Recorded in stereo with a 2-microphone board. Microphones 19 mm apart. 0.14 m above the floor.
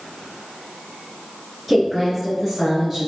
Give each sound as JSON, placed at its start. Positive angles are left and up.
{"t": 1.7, "sound": "a woman speaking", "side_deg": 0, "distance_m": 1.7}